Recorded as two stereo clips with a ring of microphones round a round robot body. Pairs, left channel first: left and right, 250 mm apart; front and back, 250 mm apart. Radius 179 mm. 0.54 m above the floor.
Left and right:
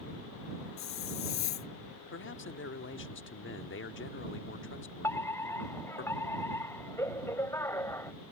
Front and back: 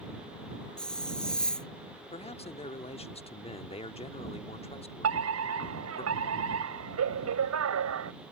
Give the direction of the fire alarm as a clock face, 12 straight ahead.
6 o'clock.